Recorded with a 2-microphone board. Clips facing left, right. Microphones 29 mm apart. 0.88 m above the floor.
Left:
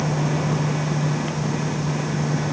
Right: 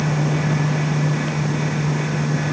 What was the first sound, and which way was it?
Only background noise.